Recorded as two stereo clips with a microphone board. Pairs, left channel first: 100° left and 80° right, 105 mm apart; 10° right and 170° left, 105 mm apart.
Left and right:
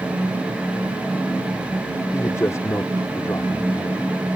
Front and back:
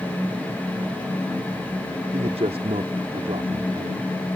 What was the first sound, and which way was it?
A man speaking, 160° left.